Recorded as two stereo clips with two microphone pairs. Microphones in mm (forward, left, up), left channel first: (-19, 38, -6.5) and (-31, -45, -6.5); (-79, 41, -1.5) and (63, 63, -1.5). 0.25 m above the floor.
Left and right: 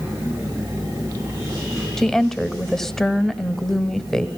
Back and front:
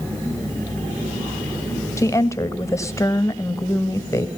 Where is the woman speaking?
160° left, 1.2 m.